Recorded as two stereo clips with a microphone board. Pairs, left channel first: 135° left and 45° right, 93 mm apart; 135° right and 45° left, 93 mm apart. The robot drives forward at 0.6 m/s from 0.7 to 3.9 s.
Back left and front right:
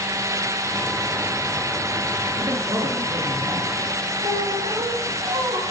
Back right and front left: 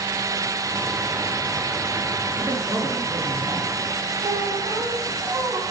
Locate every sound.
2.4 s a man speaking: 35° right, 4 m; by 3.7 s 40° right, 3.5 m
4.2 s a squeak: 30° right, 4.5 m